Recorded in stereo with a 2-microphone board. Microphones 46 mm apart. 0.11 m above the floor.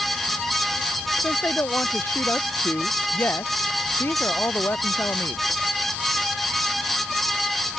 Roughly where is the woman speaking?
Left.